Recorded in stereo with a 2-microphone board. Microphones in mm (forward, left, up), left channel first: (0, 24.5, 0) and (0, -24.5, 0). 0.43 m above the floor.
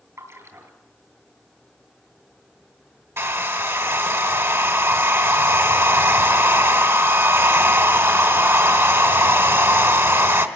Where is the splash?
70° right (ahead or behind), 3.5 m.